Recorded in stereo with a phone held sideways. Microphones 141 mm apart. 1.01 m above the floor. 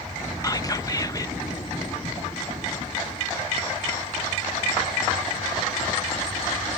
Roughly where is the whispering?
Left.